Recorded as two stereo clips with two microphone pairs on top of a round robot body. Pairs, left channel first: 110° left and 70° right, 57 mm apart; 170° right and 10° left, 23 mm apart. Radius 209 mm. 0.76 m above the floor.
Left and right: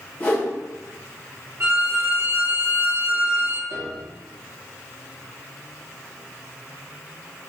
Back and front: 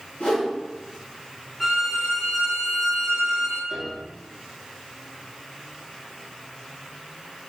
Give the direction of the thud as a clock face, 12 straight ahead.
No thud in this recording.